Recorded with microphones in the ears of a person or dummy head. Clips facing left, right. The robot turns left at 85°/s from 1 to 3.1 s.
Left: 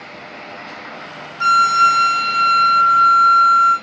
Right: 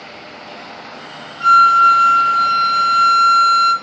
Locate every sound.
1.4 s a flute: 120° left, 0.5 m; by 3.7 s 25° right, 0.5 m